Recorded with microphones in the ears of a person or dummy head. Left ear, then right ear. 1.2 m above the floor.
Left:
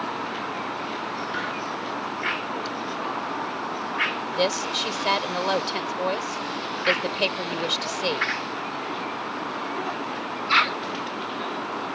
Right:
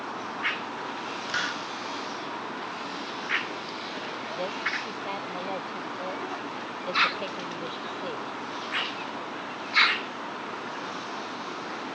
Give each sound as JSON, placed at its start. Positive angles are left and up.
{"t": 1.3, "sound": "a hiss", "side_deg": -35}
{"t": 4.3, "sound": "a woman speaking", "side_deg": 70}